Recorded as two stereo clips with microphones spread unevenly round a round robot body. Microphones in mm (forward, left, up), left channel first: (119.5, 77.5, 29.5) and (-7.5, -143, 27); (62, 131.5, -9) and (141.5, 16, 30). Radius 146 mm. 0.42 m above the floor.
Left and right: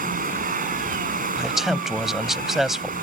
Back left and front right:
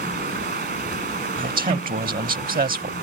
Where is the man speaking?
30° right.